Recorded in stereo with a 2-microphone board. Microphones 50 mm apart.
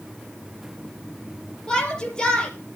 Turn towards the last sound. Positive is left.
turn(degrees=15)  # may be behind; listen again after turning